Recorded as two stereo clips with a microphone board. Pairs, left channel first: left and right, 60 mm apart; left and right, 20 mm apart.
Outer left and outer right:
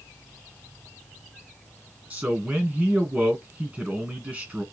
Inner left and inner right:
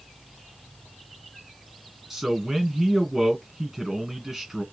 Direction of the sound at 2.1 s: 25° right (ahead or behind).